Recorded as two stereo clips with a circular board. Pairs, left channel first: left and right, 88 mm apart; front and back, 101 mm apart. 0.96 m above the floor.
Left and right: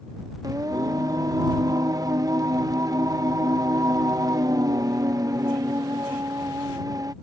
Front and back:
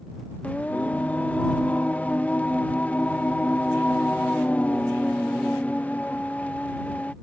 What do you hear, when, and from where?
0.4 s singing: 70° right